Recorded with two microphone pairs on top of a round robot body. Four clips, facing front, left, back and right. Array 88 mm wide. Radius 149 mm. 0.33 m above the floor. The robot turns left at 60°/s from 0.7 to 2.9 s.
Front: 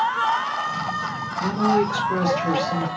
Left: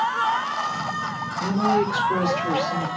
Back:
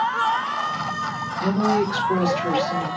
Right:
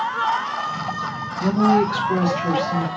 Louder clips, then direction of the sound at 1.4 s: Right 4 dB, front 1 dB; 95° right.